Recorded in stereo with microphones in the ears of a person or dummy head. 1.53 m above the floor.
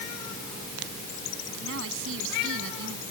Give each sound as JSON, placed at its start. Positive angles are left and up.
{"t": 1.6, "sound": "a woman speaking", "side_deg": -75}